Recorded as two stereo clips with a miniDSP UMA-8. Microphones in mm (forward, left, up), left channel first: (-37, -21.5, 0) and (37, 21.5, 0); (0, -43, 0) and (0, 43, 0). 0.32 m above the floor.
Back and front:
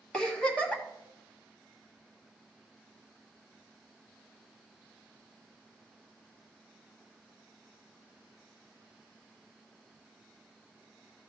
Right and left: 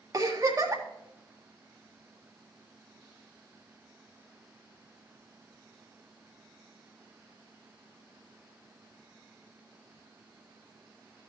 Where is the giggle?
135° left, 1.7 m.